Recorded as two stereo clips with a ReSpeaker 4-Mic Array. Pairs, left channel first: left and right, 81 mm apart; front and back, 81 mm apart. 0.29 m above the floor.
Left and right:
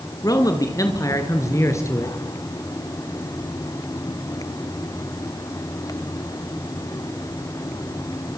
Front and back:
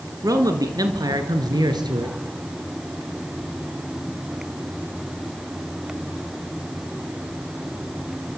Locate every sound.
0.2 s a man speaking: 130° left, 3.5 m; by 2.2 s 145° left, 4.5 m